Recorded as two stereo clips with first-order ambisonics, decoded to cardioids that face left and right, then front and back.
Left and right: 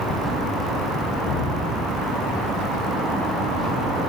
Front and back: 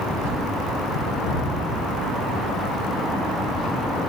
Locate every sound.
1.2 s dripping: 50° left, 9 m